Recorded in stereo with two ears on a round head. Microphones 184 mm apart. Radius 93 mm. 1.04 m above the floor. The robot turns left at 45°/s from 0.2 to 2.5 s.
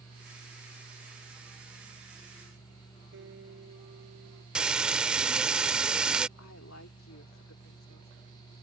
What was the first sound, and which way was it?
A guitar, 60° right (ahead or behind).